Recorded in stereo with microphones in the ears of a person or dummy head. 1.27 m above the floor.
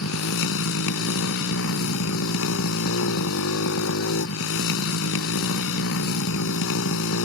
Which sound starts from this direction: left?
A motorcycle, at 0.0 s.